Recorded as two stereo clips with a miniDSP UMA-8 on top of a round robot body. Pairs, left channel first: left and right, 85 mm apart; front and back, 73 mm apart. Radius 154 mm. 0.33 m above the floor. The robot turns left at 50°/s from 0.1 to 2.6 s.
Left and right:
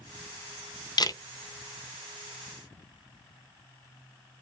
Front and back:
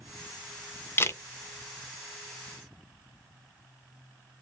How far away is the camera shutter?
About 0.5 m.